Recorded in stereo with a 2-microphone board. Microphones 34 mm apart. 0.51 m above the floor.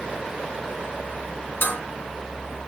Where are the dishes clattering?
85° left, 3.5 m.